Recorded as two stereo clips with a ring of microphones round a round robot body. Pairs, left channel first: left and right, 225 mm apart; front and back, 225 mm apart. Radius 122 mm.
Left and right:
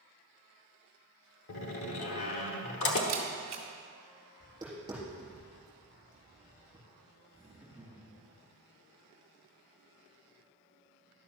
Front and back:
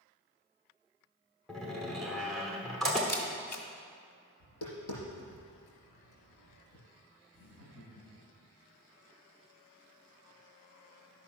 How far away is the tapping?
About 4.5 m.